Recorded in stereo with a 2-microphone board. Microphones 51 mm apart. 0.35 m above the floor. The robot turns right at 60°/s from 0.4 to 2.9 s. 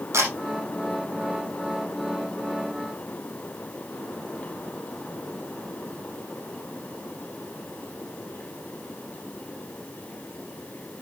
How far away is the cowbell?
No cowbell in this recording.